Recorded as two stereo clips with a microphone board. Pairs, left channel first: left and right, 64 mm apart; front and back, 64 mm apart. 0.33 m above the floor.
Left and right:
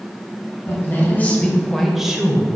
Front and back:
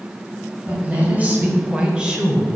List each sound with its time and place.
0.7 s a woman speaking: 125° left, 1.7 m; by 2.5 s 110° right, 1.2 m